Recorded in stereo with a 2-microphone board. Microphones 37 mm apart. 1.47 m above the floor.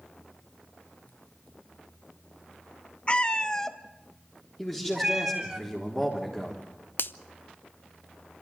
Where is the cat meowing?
30° left (ahead or behind), 0.7 m; by 5.6 s 15° right (ahead or behind), 1.5 m.